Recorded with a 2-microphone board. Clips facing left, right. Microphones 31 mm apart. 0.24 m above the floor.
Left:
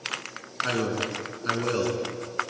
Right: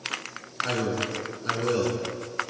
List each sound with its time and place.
0.6 s a man speaking: 15° left (ahead or behind), 3 m